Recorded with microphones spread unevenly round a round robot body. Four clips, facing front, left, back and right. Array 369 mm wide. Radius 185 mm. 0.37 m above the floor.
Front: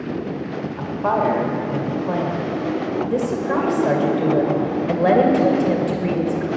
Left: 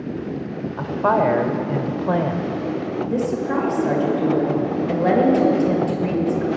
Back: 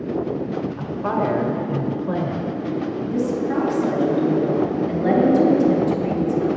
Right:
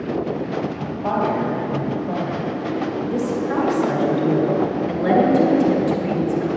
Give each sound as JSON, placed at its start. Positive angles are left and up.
{"t": 0.8, "sound": "a woman speaking", "azimuth_deg": 110, "distance_m": 1.1}
{"t": 3.1, "sound": "a woman speaking", "azimuth_deg": 10, "distance_m": 1.9}